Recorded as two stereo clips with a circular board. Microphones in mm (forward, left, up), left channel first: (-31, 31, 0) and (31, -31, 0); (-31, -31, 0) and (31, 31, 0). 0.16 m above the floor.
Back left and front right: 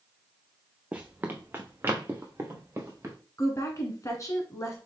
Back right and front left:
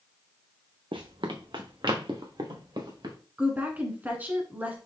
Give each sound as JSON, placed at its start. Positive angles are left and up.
{"t": 0.9, "sound": "running footsteps", "azimuth_deg": 30, "distance_m": 0.8}
{"t": 3.4, "sound": "a woman speaking", "azimuth_deg": 105, "distance_m": 1.3}